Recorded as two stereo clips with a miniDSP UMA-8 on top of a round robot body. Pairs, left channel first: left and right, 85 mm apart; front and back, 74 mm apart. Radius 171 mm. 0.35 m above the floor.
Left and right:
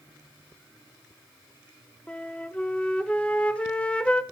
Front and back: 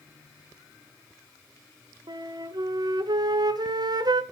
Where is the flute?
165° left, 1.1 m.